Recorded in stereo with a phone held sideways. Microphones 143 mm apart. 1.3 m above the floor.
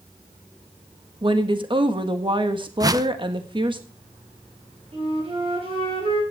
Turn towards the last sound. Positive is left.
turn(degrees=-40)  # may be behind; listen again after turning